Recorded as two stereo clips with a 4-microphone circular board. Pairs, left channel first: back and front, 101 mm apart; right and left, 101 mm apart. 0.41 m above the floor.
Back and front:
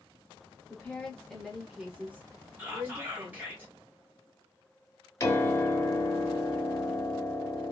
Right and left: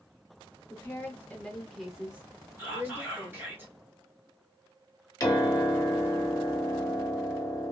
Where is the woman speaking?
125° right, 1.0 m; by 3.5 s 45° left, 1.3 m.